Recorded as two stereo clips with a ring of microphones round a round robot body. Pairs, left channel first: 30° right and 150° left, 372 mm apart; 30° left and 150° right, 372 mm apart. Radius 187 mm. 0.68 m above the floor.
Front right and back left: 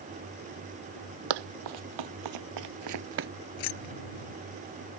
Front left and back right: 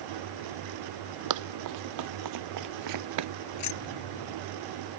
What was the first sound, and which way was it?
Running footsteps, 170° left.